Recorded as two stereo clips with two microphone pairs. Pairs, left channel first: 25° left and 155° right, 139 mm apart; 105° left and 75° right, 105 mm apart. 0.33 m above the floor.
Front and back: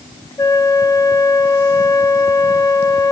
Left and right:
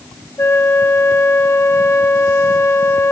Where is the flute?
65° left, 1.2 m.